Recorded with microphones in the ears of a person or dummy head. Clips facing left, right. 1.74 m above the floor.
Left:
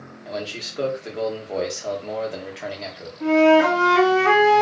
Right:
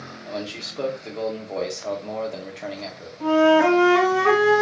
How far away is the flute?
About 1.2 m.